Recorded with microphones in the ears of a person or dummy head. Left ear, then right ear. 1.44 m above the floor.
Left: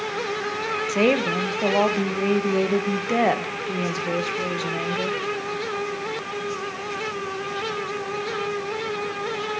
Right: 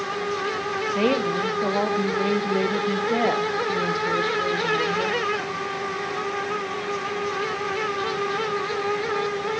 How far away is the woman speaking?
About 1.1 m.